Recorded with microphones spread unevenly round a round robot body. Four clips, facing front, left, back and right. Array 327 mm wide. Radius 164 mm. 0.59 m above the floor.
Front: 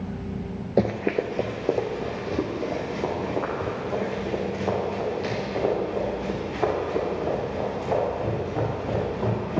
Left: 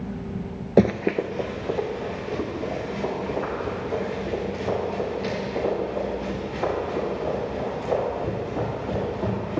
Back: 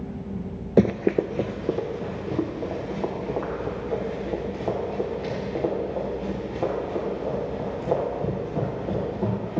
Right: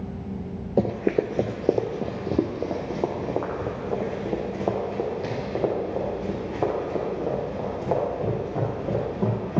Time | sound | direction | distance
0.8 | running footsteps | 135° left | 0.6 m